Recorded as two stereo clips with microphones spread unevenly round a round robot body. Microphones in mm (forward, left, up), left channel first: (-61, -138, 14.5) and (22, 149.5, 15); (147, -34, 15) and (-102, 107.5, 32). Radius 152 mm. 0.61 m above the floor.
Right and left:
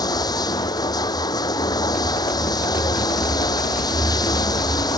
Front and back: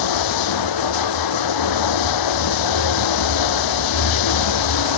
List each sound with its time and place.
0.0 s running water: 30° right